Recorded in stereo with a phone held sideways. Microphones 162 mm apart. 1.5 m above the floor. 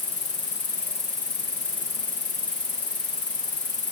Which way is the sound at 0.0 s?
50° left (ahead or behind).